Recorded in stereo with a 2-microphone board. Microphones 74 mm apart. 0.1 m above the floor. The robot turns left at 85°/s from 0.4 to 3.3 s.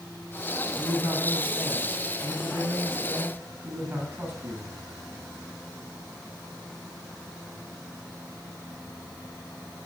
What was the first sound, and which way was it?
A man speaking, 60° left.